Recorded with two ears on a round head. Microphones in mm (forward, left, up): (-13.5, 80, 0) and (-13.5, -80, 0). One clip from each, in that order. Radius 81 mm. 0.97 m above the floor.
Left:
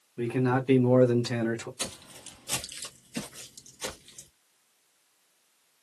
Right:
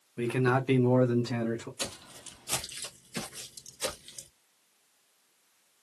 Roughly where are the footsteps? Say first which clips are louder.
Even; centre.